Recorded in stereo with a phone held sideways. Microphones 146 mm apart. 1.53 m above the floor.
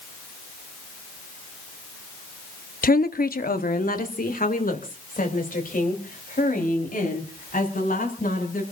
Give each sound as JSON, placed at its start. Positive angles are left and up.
{"t": 2.8, "sound": "a woman speaking", "side_deg": 80, "distance_m": 0.7}